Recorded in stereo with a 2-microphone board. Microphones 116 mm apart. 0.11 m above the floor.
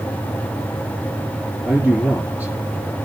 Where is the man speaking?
10° right (ahead or behind), 3 m.